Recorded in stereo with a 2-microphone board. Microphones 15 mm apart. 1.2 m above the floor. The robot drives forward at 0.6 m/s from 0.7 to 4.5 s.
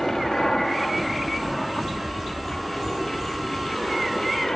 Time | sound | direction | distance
0.0 | an aircraft | 25° left (ahead or behind) | ?